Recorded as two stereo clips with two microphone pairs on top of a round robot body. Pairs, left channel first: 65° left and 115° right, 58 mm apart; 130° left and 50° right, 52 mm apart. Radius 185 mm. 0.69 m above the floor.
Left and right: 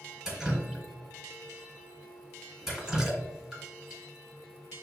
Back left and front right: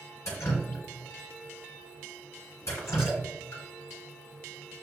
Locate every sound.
0.2 s dripping: 160° left, 1.5 m